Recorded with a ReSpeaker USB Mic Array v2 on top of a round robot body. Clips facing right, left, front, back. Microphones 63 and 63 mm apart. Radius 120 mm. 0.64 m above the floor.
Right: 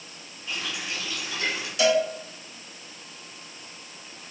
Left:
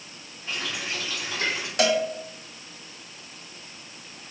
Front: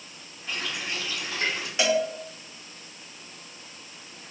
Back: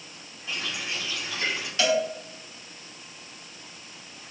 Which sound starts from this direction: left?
A cowbell, at 1.8 s.